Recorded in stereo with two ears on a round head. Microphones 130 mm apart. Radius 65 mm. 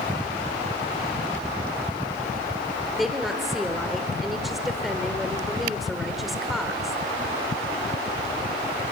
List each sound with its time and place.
3.0 s a woman speaking: centre (ahead or behind), 1.4 m